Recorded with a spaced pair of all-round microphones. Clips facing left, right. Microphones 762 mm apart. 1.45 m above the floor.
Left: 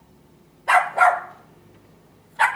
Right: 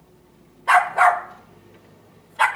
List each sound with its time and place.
0.7 s a dog barking: 35° right (ahead or behind), 1.4 m; by 2.5 s 60° right (ahead or behind), 2 m